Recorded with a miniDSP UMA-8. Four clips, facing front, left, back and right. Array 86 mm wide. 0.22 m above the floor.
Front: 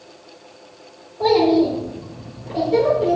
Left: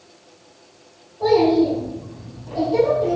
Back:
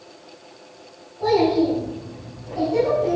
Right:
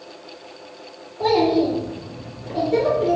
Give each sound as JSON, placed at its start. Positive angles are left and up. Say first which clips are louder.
{"t": 1.2, "sound": "a child speaking", "louder": "left 2 dB, front 3 dB", "azimuth_deg": -50, "distance_m": 3.5}